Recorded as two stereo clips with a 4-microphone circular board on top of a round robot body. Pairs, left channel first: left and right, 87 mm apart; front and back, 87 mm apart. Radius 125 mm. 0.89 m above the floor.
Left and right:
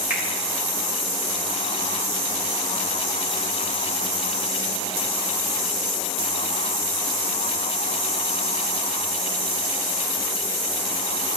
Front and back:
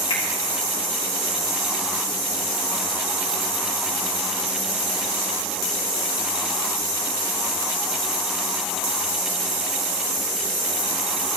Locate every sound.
0.1 s a finger snap: 15° right, 3 m